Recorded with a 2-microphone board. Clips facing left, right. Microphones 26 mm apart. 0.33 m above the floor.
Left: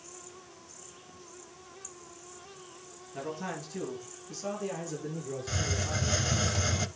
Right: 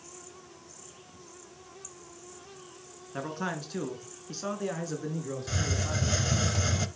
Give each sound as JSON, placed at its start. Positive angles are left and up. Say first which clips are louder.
{"t": 3.1, "sound": "a man speaking", "louder": "right 3 dB", "side_deg": -50, "distance_m": 4.5}
{"t": 5.5, "sound": "a hiss", "louder": "even", "side_deg": 0, "distance_m": 0.7}